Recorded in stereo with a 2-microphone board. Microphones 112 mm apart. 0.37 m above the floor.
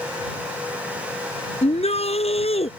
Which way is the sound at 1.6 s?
70° left (ahead or behind).